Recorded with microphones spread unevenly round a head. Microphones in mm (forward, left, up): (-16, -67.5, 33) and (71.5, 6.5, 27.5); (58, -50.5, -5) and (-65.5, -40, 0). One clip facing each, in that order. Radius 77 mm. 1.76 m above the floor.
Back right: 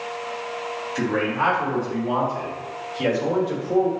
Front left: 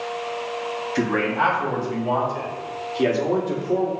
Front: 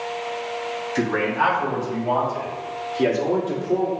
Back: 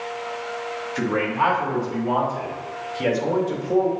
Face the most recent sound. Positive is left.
turn(degrees=-5)